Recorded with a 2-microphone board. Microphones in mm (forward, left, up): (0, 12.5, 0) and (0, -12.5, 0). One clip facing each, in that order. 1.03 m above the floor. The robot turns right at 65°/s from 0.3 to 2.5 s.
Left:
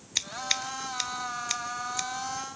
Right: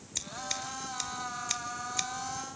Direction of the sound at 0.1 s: 45° left (ahead or behind).